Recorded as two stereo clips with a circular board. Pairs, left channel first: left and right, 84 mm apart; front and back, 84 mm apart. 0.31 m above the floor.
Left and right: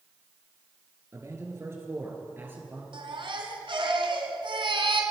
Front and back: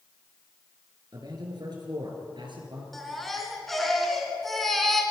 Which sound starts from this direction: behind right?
A man speaking, at 1.1 s.